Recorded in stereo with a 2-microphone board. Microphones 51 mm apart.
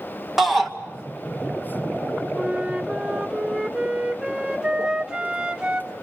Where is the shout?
Centre (ahead or behind), 2.5 m.